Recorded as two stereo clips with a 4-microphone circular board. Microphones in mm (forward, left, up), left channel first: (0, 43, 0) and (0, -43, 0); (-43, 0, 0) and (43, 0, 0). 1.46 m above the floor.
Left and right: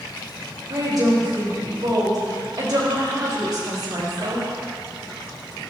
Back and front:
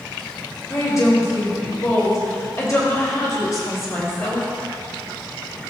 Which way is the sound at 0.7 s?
130° right.